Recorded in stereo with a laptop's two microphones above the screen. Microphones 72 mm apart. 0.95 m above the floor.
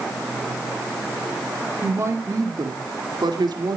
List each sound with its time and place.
1.8 s a woman speaking: 30° right (ahead or behind), 2.5 m; by 3.8 s 70° right (ahead or behind), 2.5 m